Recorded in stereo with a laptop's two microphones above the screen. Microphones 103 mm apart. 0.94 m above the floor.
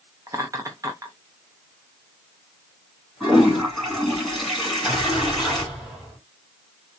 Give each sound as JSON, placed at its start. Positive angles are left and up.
{"t": 0.3, "sound": "laughter", "side_deg": -35, "distance_m": 0.6}
{"t": 3.2, "sound": "a toilet flushing", "side_deg": 0, "distance_m": 2.5}
{"t": 4.6, "sound": "an explosion", "side_deg": 0, "distance_m": 3.0}